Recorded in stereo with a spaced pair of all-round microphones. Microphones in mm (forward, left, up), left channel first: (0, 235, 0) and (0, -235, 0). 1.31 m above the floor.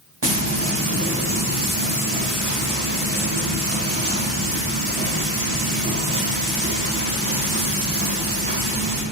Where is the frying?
60° right (ahead or behind), 1.0 m.